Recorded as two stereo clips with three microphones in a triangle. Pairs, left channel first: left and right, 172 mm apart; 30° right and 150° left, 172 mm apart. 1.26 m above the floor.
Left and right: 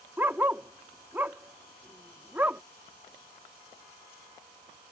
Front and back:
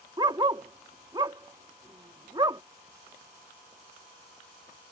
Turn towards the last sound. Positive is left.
turn(degrees=-160)